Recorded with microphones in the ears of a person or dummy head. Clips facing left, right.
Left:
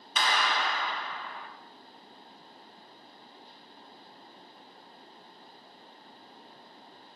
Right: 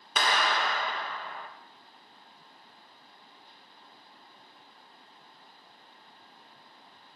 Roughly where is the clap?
Right.